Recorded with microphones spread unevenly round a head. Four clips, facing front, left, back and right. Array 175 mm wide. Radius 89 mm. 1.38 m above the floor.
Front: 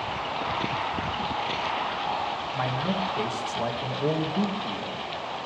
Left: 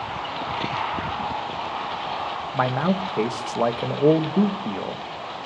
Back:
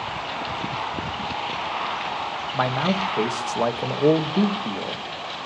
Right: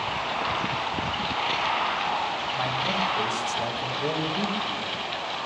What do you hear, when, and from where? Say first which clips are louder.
2.5 s a man speaking: left 8 dB, back 7 dB; 135° left, 1.3 m